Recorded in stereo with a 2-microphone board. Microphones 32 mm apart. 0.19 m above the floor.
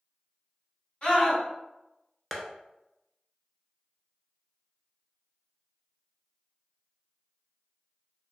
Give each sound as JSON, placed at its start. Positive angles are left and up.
{"t": 1.0, "sound": "a scream", "side_deg": 35, "distance_m": 1.7}
{"t": 2.3, "sound": "tapping", "side_deg": 5, "distance_m": 0.6}